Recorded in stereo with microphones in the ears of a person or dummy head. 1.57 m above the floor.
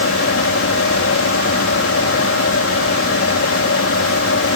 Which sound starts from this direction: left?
A fan, at 0.0 s.